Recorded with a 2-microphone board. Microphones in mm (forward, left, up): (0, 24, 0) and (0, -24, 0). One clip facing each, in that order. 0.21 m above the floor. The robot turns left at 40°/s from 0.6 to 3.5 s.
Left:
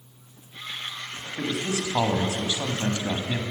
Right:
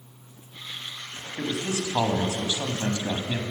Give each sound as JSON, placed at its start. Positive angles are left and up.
{"t": 1.4, "sound": "a man speaking", "side_deg": 10, "distance_m": 1.0}